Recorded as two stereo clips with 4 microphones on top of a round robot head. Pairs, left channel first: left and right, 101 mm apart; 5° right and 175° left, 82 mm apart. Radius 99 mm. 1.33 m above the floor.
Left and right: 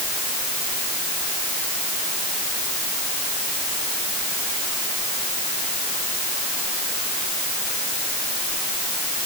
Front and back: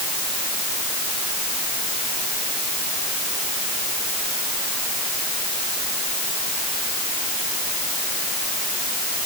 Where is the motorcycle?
No motorcycle in this recording.